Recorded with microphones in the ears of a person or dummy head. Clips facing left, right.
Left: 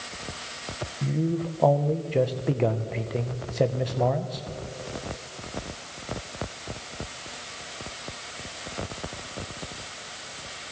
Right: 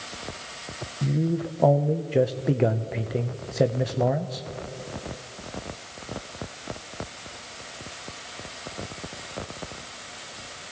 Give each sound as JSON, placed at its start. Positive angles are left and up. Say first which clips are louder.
{"t": 1.0, "sound": "a man speaking", "louder": "right 1 dB", "side_deg": -5, "distance_m": 0.7}